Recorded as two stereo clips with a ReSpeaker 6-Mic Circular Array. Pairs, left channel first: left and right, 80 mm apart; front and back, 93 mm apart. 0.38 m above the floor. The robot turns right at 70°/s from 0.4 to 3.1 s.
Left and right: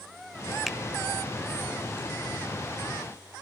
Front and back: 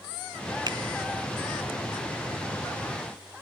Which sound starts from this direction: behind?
A finger snap, at 0.7 s.